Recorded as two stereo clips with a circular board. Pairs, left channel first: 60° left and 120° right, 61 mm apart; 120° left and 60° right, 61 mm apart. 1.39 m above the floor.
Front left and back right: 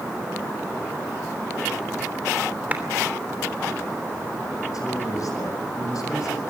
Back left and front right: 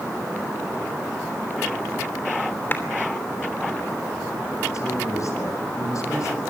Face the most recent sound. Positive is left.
turn(degrees=85)